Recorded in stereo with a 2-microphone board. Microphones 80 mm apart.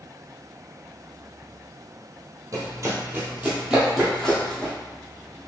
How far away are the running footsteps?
About 1.2 m.